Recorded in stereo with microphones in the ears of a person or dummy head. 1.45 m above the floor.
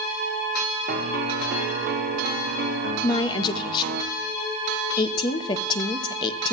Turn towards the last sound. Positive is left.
turn(degrees=30)  # may be behind; listen again after turning